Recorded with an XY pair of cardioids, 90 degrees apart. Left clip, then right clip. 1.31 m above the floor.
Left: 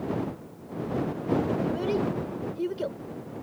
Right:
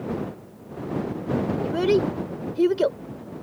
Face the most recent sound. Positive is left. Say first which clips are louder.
# right 6 dB
turn(degrees=-70)